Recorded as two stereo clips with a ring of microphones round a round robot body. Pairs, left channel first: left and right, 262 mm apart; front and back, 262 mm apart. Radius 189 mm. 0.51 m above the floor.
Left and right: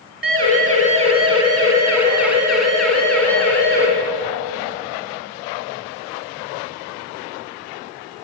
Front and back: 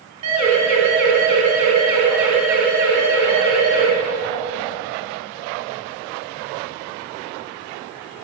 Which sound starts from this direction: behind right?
A siren, at 0.2 s.